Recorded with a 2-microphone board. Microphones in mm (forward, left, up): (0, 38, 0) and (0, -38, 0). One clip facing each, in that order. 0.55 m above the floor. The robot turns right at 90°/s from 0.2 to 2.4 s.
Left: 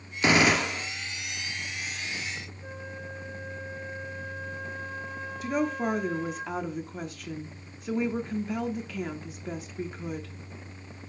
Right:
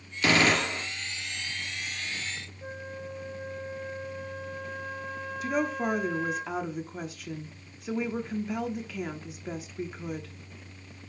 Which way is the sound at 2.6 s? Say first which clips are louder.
Right 1 dB; 60° right (ahead or behind).